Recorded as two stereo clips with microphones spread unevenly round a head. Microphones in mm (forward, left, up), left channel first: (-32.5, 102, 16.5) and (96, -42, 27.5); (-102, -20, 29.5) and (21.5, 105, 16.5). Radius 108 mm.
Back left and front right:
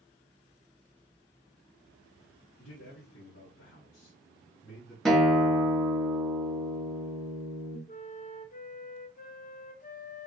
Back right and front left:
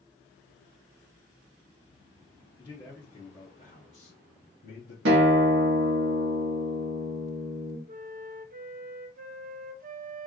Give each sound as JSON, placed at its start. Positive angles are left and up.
{"t": 2.6, "sound": "a man speaking", "azimuth_deg": 155, "distance_m": 1.7}
{"t": 5.0, "sound": "a guitar", "azimuth_deg": 45, "distance_m": 1.3}
{"t": 7.9, "sound": "a flute", "azimuth_deg": 85, "distance_m": 0.7}